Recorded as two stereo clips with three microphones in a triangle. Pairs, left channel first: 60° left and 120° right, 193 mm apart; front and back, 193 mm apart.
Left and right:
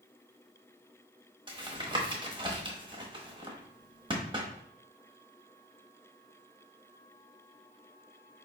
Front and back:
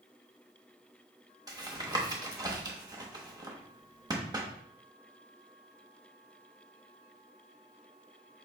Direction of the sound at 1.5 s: 140° right.